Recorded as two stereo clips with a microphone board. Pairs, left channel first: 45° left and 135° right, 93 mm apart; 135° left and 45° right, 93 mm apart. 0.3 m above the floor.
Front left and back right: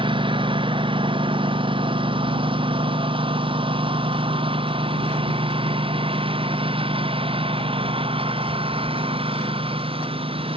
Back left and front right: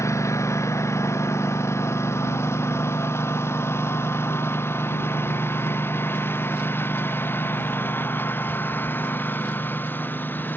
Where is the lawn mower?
165° right; by 10.6 s 155° right.